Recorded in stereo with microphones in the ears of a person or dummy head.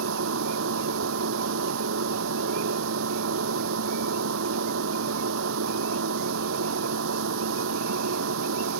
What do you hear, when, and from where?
0.0 s a machine running: 75° right (ahead or behind)